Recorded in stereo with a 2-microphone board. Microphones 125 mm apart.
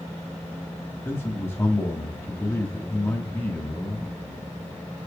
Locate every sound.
1.1 s a man speaking: 20° left (ahead or behind), 1.6 m